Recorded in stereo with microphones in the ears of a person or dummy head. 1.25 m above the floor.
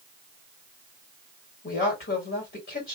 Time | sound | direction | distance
1.6 | a woman speaking | 55° left (ahead or behind) | 2.5 m